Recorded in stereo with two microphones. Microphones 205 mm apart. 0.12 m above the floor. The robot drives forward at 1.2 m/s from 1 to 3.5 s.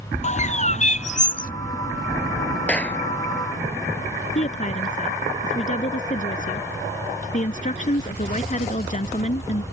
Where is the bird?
35° left (ahead or behind); by 1.5 s 45° left (ahead or behind).